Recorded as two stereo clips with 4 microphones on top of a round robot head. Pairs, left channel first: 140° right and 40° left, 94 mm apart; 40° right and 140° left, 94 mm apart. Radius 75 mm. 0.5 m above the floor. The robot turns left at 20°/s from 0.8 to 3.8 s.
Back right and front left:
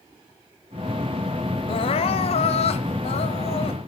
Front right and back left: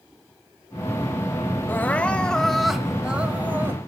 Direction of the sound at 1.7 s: 110° right.